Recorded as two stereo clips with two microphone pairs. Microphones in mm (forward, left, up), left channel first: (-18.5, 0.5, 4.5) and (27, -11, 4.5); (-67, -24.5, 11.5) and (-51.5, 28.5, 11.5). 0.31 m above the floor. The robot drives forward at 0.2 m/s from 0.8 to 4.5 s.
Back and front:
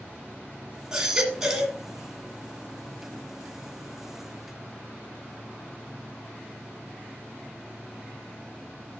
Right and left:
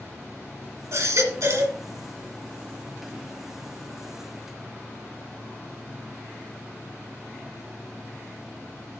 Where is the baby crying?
60° left, 2 m; by 1.8 s 65° left, 1.9 m.